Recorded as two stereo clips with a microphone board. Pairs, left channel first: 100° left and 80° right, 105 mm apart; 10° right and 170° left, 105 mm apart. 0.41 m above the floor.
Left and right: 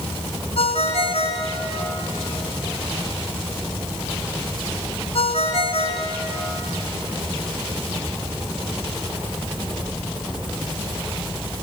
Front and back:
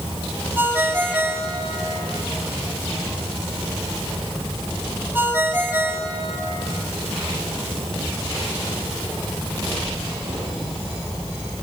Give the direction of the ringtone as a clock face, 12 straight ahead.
9 o'clock.